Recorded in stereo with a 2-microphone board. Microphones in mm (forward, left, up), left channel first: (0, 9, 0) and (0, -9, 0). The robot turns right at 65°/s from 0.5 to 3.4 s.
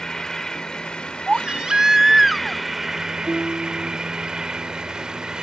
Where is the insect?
50° left; by 5.4 s 125° right.